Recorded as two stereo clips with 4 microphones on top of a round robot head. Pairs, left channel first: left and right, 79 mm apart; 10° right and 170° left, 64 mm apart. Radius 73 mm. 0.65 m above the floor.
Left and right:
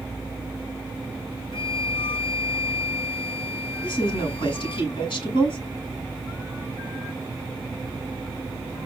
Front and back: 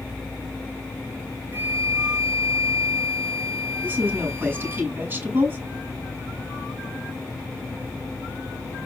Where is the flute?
110° left, 5.5 m.